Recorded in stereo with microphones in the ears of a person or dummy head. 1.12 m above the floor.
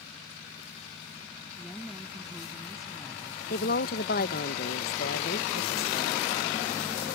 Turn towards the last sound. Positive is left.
turn(degrees=50)  # may be behind; listen again after turning